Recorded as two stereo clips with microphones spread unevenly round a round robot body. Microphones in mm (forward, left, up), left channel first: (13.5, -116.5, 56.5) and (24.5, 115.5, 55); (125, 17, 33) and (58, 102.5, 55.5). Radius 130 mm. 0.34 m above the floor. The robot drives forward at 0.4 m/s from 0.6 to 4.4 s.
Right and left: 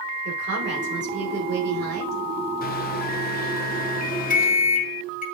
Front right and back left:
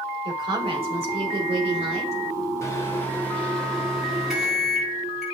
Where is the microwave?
75° right, 1.0 m; by 5.2 s 135° right, 1.1 m.